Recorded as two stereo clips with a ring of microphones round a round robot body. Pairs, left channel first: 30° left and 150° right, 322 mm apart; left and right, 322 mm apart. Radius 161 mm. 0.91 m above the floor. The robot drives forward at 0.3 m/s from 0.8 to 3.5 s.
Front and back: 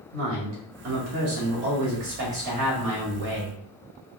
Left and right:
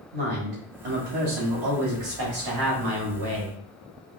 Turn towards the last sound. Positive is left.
turn(degrees=-125)